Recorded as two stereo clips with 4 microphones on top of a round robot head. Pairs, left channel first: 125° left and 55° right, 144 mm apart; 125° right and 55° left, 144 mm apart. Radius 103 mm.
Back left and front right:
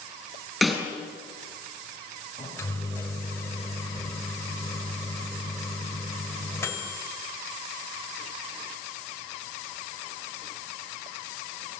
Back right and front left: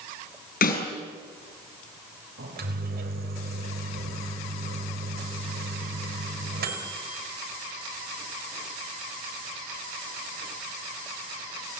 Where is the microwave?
50° left, 4 m.